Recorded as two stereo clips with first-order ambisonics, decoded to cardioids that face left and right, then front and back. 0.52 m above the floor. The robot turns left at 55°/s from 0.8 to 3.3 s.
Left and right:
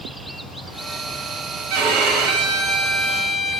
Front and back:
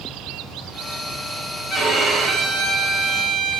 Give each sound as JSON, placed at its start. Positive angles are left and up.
{"t": 1.7, "sound": "a violin", "azimuth_deg": -80, "distance_m": 1.8}